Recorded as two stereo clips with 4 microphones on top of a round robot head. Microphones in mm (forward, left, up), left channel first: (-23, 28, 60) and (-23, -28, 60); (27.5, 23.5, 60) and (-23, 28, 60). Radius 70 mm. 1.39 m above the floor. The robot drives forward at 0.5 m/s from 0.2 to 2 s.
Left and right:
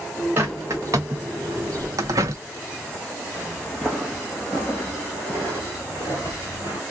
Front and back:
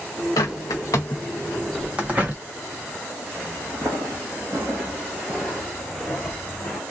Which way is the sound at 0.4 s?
30° right.